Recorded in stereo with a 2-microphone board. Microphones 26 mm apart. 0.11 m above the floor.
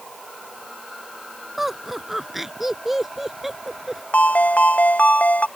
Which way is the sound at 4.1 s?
75° left (ahead or behind).